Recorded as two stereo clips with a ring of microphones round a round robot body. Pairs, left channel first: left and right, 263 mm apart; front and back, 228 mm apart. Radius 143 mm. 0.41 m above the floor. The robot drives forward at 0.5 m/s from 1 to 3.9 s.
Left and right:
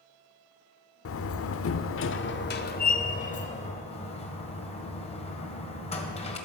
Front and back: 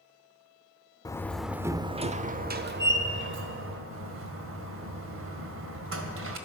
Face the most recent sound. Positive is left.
turn(degrees=155)